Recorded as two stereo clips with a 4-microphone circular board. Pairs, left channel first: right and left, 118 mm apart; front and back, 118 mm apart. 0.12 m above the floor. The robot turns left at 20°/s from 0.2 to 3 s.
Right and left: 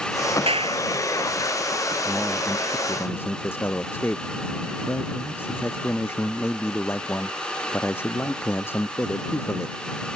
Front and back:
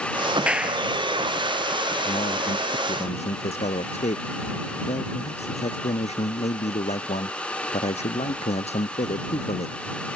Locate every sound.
0.5 s a clap: 105° left; by 0.9 s 95° left
2.0 s a man speaking: straight ahead; by 9.8 s 20° right